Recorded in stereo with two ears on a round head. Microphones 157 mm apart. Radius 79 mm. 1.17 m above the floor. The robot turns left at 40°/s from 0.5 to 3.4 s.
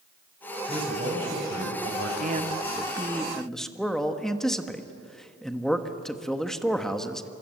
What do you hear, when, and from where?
0.7 s a man speaking: 25° right, 5 m; by 2.1 s 80° right, 5 m
2.2 s a man speaking: 135° right, 1.4 m; by 7.3 s straight behind, 1.4 m